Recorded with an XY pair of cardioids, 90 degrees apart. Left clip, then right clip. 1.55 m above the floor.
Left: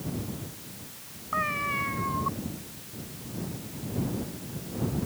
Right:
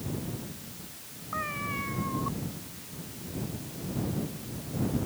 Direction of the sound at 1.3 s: 40° left.